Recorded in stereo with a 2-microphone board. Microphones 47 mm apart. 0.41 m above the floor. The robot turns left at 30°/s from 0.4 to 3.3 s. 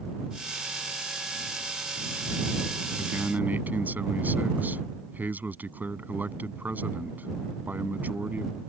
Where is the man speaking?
50° right (ahead or behind); by 8.6 s 40° right (ahead or behind).